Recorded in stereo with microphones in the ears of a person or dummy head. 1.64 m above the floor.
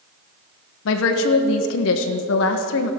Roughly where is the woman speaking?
Left.